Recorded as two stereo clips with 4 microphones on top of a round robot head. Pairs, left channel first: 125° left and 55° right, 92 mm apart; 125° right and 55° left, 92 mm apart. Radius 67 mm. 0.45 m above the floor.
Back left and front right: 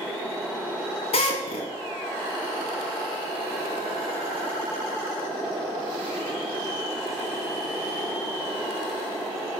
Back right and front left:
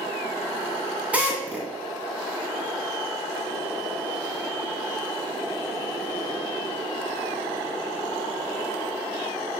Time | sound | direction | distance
1.1 | a drill | 130° left | 2.5 m